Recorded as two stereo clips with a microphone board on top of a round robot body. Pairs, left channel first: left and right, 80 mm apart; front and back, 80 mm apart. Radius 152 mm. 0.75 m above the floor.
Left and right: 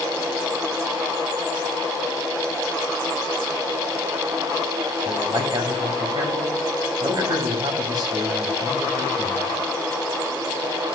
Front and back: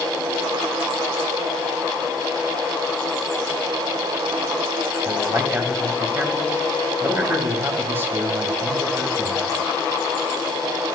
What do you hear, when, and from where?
5.0 s a man speaking: 120° right, 3 m